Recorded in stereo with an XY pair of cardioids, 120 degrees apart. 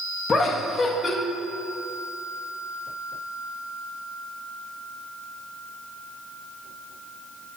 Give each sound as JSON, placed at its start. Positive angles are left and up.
{"t": 0.3, "sound": "laughter", "azimuth_deg": 25, "distance_m": 1.5}